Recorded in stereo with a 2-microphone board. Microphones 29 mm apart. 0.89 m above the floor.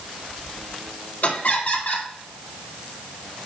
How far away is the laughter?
About 1.9 m.